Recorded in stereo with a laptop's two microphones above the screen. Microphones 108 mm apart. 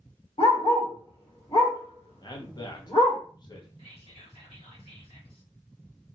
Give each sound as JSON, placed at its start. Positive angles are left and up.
{"t": 0.4, "sound": "a dog barking", "side_deg": 55, "distance_m": 1.4}
{"t": 2.2, "sound": "a man speaking", "side_deg": 40, "distance_m": 0.8}
{"t": 3.8, "sound": "whispering", "side_deg": 65, "distance_m": 1.3}